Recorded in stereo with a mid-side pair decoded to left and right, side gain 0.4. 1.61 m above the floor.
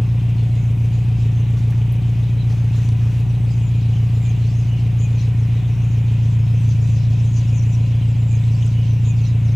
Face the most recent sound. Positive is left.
turn(degrees=0)